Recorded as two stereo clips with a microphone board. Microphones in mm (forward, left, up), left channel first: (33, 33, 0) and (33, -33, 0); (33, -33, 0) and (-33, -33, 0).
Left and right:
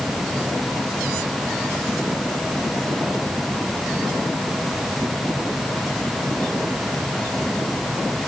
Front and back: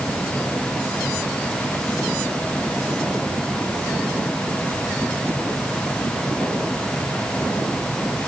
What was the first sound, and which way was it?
Only background noise.